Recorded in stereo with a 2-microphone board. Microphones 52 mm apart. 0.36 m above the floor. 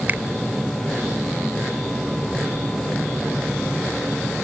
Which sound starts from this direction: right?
A finger snap, at 0.1 s.